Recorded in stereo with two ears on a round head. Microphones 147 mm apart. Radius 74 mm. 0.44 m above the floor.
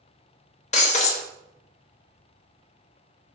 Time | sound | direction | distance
0.7 | breaking glass | 45° left (ahead or behind) | 0.8 m